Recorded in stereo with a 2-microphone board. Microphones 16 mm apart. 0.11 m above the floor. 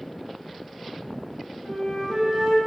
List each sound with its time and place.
1.6 s a flute: 45° right (ahead or behind), 1.9 m